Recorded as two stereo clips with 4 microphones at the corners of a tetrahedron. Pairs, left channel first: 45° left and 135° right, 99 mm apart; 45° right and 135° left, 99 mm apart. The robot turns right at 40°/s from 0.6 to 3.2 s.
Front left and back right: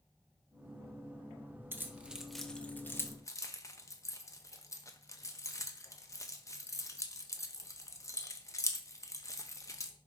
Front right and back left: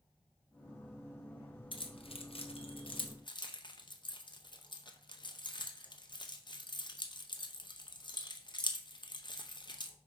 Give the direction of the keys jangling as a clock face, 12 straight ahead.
2 o'clock.